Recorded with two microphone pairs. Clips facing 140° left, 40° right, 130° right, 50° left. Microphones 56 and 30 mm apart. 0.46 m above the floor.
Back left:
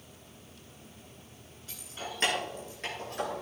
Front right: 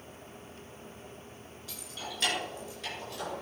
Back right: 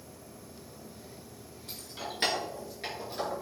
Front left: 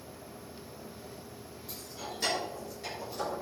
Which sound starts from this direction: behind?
Keys jangling, at 1.7 s.